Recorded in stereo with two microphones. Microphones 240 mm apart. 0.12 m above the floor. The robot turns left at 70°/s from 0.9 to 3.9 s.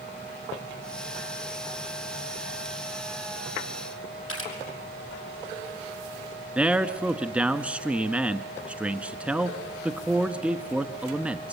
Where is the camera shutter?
65° left (ahead or behind), 5.5 m.